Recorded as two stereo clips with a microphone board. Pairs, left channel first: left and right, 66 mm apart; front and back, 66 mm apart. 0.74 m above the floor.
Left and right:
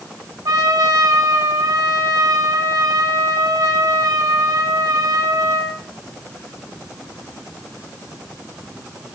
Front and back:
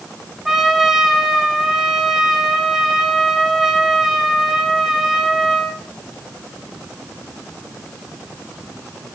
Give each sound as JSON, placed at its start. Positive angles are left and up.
{"t": 0.5, "sound": "a trumpet", "azimuth_deg": -95, "distance_m": 2.0}